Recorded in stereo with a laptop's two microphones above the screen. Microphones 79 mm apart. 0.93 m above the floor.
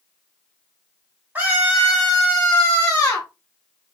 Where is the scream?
20° right (ahead or behind), 1.0 m; by 3.3 s 40° left (ahead or behind), 1.1 m.